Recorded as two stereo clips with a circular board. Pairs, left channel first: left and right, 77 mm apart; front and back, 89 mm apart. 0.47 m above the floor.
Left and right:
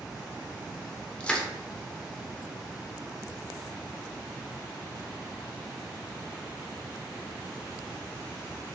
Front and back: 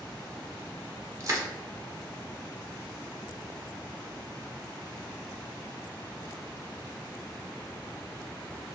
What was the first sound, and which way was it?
Crushing, 155° left.